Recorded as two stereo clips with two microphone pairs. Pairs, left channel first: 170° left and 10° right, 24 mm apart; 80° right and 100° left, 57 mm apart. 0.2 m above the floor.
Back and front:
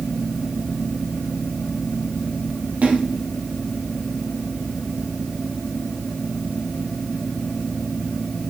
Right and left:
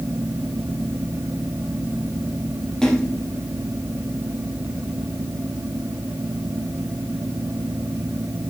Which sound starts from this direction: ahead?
A splash, at 2.8 s.